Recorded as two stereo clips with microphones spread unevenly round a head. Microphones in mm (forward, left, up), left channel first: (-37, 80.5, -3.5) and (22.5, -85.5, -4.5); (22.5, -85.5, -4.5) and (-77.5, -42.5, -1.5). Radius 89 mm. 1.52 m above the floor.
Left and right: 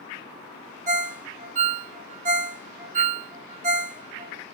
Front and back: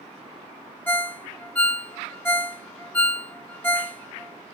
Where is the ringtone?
95° right, 0.6 m.